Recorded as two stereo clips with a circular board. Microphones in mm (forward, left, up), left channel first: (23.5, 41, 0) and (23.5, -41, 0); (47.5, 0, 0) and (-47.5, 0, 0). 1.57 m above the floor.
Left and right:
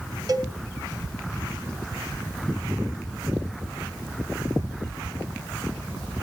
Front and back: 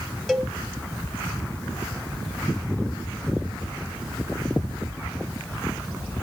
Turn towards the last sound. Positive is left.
turn(degrees=-90)